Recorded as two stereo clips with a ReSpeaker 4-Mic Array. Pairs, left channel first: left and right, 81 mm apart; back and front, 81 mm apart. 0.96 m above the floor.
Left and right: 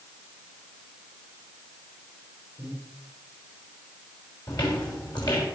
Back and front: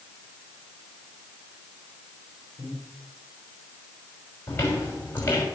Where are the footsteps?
120° left, 6 m.